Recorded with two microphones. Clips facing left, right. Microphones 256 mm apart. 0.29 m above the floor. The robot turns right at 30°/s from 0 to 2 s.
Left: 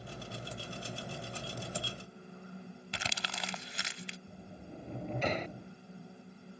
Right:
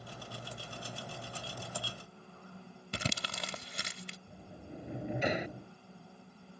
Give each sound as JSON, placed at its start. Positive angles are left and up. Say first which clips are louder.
{"t": 2.9, "sound": "crumpling", "louder": "right 7 dB", "side_deg": -45}
{"t": 4.3, "sound": "a sliding door", "louder": "even", "side_deg": -15}